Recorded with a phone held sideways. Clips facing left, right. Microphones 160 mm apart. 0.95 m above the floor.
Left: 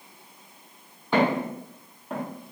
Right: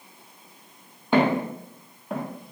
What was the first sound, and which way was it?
Footsteps, 20° right (ahead or behind).